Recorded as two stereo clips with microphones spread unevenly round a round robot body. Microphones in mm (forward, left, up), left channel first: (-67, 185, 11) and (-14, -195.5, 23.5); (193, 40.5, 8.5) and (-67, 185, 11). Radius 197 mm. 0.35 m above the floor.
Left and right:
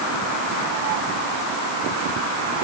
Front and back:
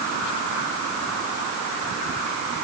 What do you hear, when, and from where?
Only background noise.